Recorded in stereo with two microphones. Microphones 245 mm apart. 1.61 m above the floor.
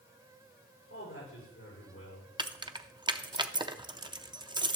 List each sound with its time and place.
0.9 s a man speaking: 65° left (ahead or behind), 5 m
2.4 s keys jangling: 20° right (ahead or behind), 0.5 m